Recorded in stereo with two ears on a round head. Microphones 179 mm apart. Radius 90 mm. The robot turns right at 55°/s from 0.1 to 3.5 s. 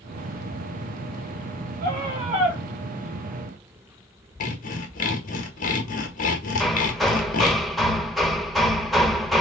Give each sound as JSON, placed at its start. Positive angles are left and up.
{"t": 1.8, "sound": "a scream", "azimuth_deg": -50, "distance_m": 5.5}
{"t": 4.4, "sound": "sawing", "side_deg": 40, "distance_m": 1.6}
{"t": 6.6, "sound": "hammering", "side_deg": 0, "distance_m": 0.8}